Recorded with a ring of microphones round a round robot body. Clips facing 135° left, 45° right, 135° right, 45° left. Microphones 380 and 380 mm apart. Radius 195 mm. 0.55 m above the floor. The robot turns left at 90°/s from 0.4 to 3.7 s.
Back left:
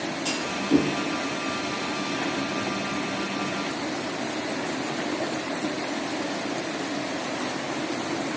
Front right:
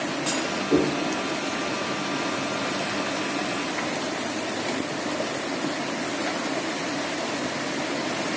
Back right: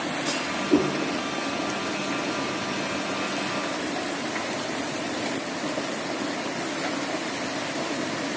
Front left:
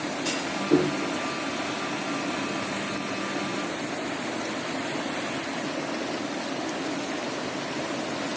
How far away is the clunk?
About 8.5 m.